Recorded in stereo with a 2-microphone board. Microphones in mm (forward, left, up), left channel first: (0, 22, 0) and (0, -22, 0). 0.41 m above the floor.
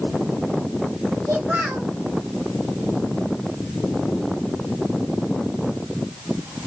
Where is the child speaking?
45° right (ahead or behind), 1.6 m.